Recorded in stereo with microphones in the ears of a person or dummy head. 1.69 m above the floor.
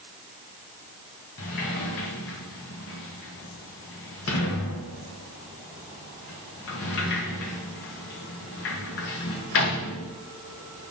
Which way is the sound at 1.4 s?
55° left (ahead or behind).